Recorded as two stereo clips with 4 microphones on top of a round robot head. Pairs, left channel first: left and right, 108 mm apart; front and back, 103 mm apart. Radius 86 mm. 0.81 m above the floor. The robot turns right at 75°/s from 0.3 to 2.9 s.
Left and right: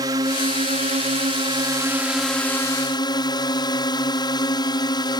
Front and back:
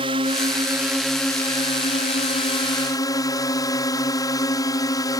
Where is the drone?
145° right; by 5.2 s 50° left.